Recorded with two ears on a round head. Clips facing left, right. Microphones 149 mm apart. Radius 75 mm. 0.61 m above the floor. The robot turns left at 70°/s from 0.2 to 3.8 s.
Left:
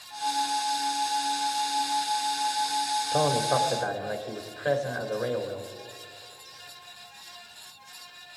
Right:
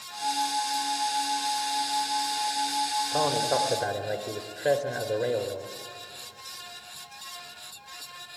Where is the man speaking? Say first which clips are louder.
Left 2 dB; 10° left, 1.7 m; by 5.7 s 35° right, 1.7 m.